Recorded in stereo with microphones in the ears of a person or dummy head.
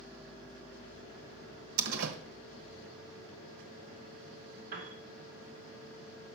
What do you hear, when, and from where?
1.8 s a door slam: 80° right, 1.2 m
4.7 s a piano: 55° right (ahead or behind), 2.5 m